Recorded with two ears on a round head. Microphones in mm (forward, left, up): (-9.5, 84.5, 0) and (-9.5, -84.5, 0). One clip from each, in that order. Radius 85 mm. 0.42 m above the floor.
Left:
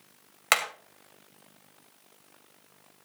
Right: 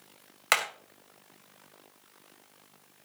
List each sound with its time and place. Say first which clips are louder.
0.5 s hammering: left 1 dB; 10° left (ahead or behind), 2 m